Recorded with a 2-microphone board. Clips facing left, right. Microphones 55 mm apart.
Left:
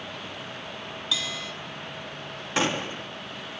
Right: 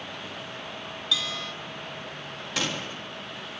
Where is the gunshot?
25° left (ahead or behind), 1.2 m.